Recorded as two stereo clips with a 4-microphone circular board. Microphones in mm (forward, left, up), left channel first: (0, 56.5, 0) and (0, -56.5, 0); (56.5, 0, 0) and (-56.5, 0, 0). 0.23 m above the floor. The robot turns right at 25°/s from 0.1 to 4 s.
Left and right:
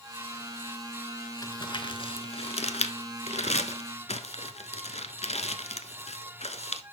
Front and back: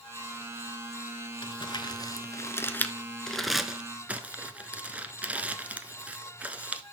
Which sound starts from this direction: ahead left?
Crumpling, at 1.4 s.